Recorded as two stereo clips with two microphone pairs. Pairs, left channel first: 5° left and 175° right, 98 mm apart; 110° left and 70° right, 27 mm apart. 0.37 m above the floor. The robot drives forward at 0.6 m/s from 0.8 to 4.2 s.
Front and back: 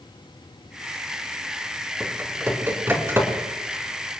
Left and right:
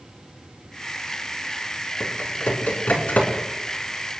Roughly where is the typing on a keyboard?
Behind left.